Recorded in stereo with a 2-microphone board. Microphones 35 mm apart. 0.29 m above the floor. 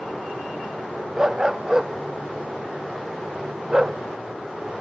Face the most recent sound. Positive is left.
turn(degrees=-20)  # may be behind; listen again after turning